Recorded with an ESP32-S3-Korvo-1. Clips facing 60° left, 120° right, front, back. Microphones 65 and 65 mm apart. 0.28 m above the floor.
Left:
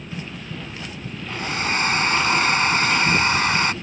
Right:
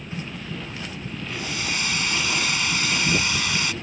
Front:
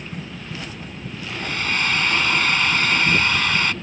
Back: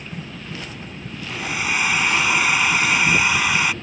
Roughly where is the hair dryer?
Left.